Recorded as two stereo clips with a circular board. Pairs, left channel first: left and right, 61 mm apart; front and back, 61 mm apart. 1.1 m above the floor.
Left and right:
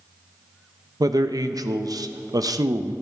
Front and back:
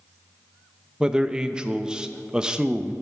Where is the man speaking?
100° right, 0.7 m.